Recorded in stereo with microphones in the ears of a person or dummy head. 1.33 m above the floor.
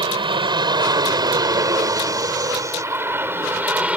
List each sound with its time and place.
0.0 s an aircraft: 25° right (ahead or behind); by 4.0 s 5° right (ahead or behind)